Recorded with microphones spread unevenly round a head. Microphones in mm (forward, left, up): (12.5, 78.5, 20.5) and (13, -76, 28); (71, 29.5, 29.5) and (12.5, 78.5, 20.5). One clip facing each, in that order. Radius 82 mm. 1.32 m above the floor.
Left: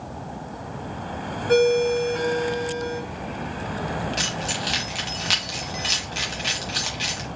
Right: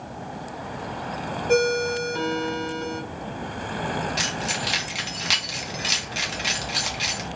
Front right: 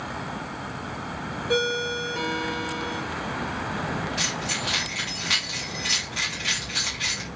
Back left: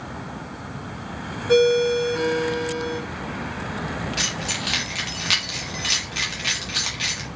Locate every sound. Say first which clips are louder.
1.5 s a ringtone: left 4 dB, back left 9 dB; 170° right, 1.5 m
4.2 s keys jangling: even, back left 1 dB; 175° right, 0.9 m